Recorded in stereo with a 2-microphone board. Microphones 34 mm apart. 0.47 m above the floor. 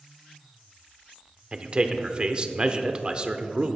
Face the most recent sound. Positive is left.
turn(degrees=-25)  # may be behind; listen again after turning